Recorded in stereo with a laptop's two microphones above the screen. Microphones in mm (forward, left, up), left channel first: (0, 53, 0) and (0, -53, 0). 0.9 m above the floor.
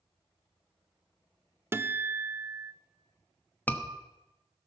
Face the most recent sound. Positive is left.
turn(degrees=15)  # may be behind; listen again after turning